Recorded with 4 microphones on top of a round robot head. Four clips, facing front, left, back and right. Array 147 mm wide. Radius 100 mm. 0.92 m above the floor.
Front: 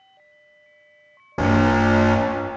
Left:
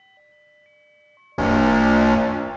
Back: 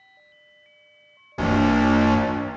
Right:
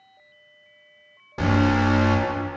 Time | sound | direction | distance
1.4 | an alarm | 40° left | 2.5 m